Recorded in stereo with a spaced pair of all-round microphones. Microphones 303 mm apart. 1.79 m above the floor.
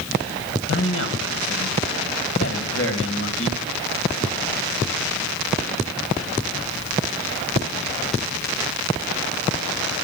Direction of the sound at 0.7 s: 45° left (ahead or behind).